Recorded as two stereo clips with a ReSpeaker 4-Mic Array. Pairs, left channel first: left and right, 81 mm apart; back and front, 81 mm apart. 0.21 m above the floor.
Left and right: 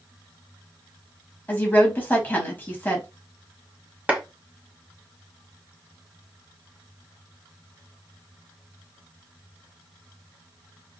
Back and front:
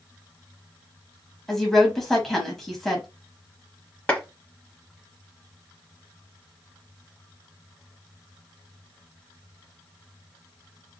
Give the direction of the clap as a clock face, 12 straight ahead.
5 o'clock.